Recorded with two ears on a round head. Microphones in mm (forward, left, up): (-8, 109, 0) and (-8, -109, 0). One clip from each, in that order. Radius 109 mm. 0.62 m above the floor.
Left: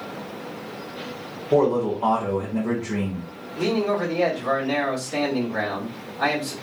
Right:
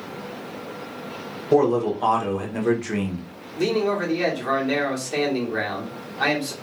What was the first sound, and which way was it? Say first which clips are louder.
A man speaking: right 1 dB; 65° right (ahead or behind).